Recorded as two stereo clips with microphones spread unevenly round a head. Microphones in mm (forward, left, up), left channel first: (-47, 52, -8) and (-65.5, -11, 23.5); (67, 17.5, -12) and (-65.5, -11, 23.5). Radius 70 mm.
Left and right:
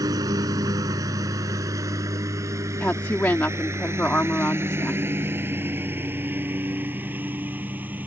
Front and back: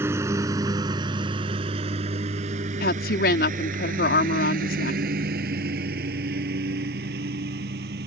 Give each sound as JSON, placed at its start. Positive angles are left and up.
{"t": 0.0, "sound": "a lawn mower", "azimuth_deg": -100}
{"t": 2.8, "sound": "a woman speaking", "azimuth_deg": -15}